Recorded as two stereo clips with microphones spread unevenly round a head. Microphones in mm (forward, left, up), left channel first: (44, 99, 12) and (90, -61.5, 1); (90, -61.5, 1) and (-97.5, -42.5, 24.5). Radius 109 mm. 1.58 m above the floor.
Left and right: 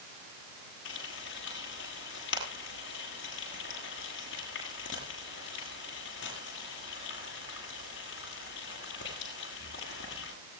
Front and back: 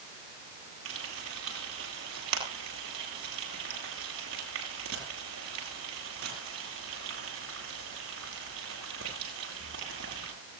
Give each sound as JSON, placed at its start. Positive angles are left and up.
{"t": 0.8, "sound": "frying", "azimuth_deg": 145, "distance_m": 8.0}